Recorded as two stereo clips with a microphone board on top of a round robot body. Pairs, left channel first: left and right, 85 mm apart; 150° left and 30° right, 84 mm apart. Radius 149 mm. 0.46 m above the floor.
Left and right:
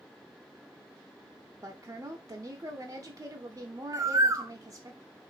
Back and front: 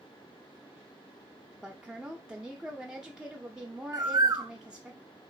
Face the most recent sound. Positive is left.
turn(degrees=-55)